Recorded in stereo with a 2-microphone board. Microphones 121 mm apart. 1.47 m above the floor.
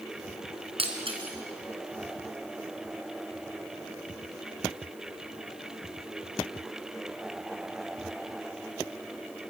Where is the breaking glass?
50° right (ahead or behind), 3.5 m.